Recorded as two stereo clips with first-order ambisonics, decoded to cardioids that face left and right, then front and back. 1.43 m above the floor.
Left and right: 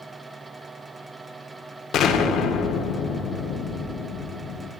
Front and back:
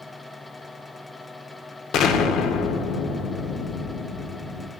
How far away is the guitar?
No guitar in this recording.